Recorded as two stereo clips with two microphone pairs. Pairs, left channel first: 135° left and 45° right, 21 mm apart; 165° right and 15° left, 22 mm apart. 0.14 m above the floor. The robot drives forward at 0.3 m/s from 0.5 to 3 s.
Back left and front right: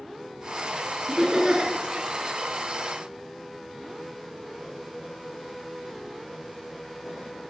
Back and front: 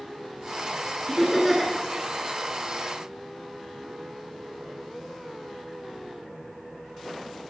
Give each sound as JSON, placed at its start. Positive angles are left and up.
{"t": 1.1, "sound": "laughter", "azimuth_deg": -70, "distance_m": 2.0}